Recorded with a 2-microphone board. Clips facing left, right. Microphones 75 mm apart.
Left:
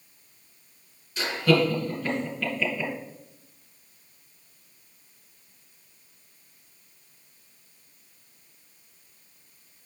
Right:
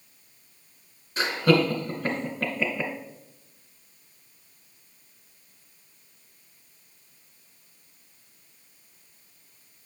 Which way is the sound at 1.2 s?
40° right (ahead or behind).